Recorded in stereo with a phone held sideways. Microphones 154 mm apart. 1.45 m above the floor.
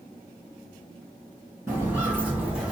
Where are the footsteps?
15° right (ahead or behind), 1.9 m; by 2.7 s 5° right (ahead or behind), 1.4 m.